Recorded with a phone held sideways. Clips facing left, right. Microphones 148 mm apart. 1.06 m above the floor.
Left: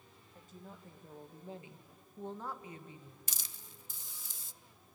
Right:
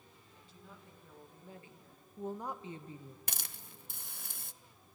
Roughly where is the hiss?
Right.